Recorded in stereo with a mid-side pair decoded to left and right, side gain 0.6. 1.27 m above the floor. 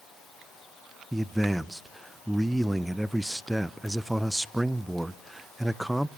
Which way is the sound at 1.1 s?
10° right.